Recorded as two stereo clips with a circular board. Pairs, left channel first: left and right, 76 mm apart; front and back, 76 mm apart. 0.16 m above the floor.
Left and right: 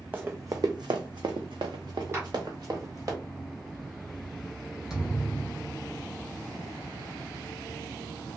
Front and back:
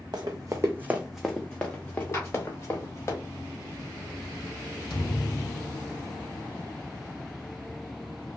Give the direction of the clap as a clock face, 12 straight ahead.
1 o'clock.